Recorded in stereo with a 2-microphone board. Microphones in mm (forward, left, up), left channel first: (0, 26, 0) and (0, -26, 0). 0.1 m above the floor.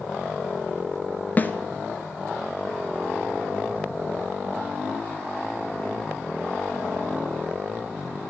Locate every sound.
1.4 s a snare drum: 35° left (ahead or behind), 0.8 m